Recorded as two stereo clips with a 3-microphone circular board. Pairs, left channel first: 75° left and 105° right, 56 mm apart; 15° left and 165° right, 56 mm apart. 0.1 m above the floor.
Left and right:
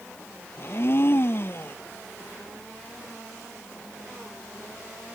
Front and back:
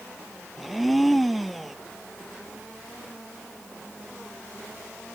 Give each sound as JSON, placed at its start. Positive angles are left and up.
{"t": 0.6, "sound": "a blender", "azimuth_deg": 105}